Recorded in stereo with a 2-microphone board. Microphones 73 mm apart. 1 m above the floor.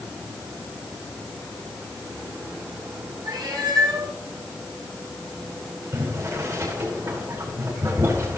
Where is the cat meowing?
75° right (ahead or behind), 4 m.